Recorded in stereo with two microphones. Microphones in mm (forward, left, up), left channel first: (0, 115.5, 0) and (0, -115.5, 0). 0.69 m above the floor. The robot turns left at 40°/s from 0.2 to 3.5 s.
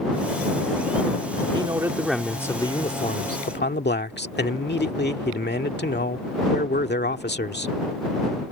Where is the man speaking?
155° right; by 7.8 s 125° left.